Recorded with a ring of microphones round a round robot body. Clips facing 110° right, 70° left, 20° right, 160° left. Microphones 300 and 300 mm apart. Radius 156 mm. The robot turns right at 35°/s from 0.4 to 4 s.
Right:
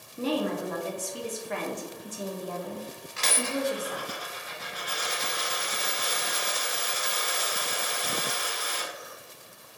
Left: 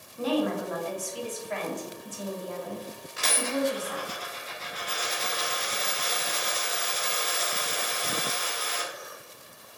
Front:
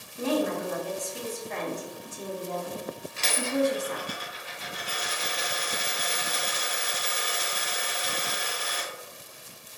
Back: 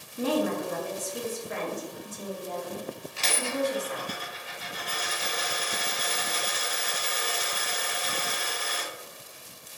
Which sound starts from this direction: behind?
A woman speaking, at 0.2 s.